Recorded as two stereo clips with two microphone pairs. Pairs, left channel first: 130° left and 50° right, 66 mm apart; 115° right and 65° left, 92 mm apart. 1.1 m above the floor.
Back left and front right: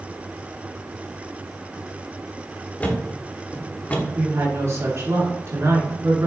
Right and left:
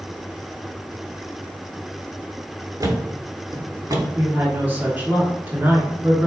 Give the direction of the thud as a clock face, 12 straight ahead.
9 o'clock.